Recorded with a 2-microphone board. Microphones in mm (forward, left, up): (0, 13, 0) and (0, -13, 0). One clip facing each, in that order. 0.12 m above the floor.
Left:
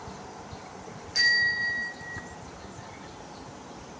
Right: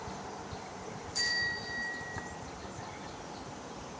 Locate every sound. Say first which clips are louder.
1.1 s a bicycle bell: left 10 dB; 60° left (ahead or behind), 5 m; by 2.2 s 55° left (ahead or behind), 4.5 m